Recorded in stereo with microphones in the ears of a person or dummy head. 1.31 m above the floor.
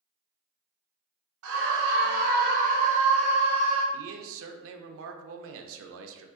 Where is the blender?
I don't hear a blender.